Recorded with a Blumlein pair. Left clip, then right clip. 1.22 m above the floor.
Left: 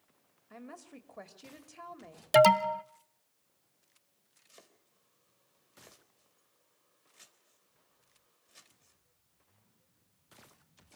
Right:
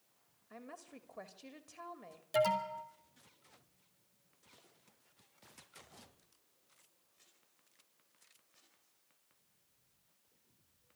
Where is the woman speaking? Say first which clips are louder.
Left 2 dB; 10° left, 2.5 m.